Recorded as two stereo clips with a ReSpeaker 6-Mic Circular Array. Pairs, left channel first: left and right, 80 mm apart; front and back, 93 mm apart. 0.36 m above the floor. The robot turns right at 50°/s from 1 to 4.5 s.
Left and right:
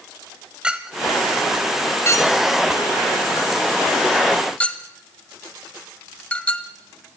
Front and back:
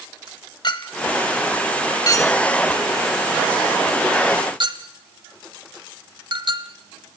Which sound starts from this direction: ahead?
A clink, at 0.6 s.